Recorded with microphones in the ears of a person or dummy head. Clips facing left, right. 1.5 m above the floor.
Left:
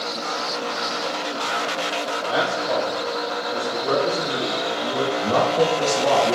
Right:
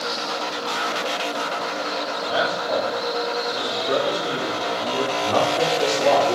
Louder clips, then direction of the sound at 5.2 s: Left 2 dB; 85° left.